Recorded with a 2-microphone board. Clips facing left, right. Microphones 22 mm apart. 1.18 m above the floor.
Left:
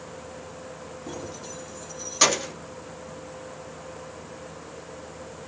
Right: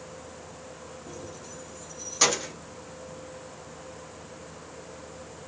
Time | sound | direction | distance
1.1 | keys jangling | 65° left (ahead or behind) | 0.9 m